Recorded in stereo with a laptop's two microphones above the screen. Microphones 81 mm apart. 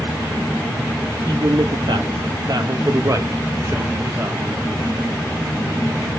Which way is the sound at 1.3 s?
60° right (ahead or behind).